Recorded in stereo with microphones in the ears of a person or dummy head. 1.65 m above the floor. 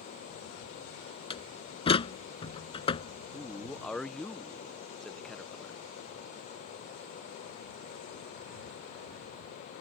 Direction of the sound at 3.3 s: 5° left (ahead or behind).